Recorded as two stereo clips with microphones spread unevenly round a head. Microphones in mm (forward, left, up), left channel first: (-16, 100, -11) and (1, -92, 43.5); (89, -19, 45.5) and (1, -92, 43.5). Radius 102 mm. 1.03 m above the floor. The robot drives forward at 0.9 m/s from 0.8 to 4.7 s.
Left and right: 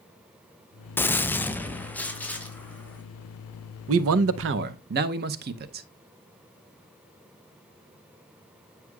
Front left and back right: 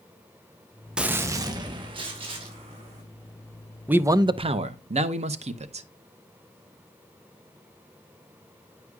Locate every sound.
1.0 s a gunshot: 140° left, 0.5 m; by 3.0 s 175° left, 2 m
3.9 s a man speaking: 65° right, 0.7 m; by 5.9 s 130° right, 0.8 m